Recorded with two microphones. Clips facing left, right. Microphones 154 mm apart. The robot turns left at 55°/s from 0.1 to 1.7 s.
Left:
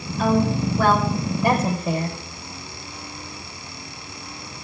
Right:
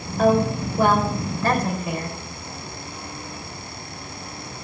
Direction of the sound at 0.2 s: 55° right (ahead or behind).